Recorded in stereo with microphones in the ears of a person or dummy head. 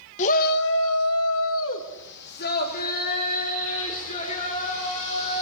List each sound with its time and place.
0.2 s a shout: 40° left (ahead or behind), 1.4 m; by 5.4 s 35° left (ahead or behind), 6 m